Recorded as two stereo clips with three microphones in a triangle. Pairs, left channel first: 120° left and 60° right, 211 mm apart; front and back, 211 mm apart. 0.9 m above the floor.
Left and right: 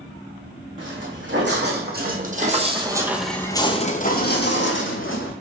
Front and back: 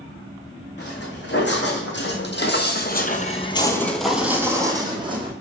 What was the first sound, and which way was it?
Footsteps, 35° right.